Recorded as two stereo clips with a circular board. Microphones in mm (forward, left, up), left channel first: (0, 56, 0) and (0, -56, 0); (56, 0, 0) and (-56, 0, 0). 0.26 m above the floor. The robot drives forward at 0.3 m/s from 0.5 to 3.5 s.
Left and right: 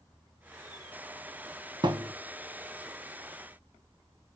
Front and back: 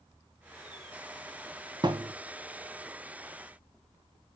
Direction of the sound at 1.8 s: 135° right.